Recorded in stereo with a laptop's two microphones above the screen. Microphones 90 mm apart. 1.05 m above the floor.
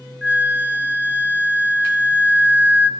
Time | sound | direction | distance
0.2 | a flute | 20° right (ahead or behind) | 1.6 m